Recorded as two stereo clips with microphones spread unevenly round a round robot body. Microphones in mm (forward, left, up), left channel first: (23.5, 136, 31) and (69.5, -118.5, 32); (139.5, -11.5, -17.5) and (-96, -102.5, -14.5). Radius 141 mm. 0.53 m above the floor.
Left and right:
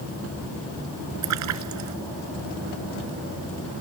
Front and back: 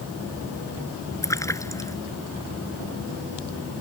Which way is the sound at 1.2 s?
55° right.